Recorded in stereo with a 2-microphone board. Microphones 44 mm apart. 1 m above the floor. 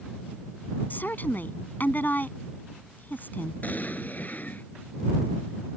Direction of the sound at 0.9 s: 45° left (ahead or behind).